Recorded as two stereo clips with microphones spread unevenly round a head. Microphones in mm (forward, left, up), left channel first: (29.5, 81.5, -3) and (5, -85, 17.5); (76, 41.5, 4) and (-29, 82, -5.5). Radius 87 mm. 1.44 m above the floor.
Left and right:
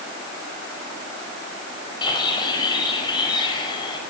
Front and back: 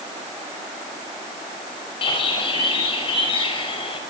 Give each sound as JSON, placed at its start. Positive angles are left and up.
{"t": 2.0, "sound": "a bird", "azimuth_deg": 15, "distance_m": 5.5}